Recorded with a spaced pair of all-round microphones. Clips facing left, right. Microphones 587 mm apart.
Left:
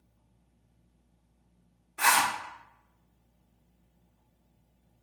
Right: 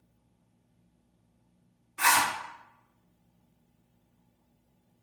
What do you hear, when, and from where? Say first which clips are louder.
2.0 s a zipper: even; 25° right (ahead or behind), 1.3 m